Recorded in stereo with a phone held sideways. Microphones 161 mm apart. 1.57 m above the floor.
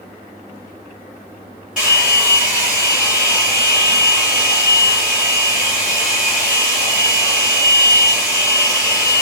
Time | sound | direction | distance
1.8 | a hair dryer | 5° right (ahead or behind) | 2 m